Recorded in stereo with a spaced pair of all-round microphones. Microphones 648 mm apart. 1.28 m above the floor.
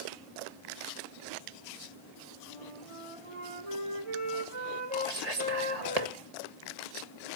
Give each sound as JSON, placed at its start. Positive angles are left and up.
{"t": 2.5, "sound": "a flute", "side_deg": -55, "distance_m": 3.5}
{"t": 5.1, "sound": "whispering", "side_deg": -75, "distance_m": 1.8}